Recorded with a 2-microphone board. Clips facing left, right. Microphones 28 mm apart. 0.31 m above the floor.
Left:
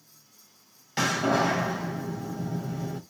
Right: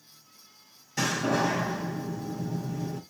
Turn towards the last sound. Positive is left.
turn(degrees=50)  # may be behind; listen again after turning